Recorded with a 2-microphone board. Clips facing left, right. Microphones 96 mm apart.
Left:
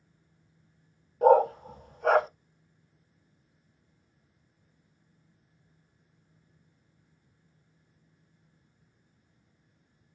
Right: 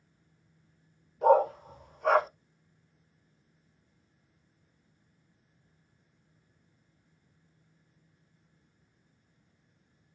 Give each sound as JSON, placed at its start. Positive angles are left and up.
{"t": 1.2, "sound": "a dog barking", "side_deg": 55, "distance_m": 0.8}